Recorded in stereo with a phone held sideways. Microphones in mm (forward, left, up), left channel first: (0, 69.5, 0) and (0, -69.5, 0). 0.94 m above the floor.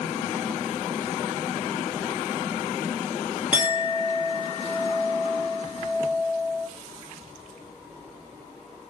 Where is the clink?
10° right (ahead or behind), 1.3 m.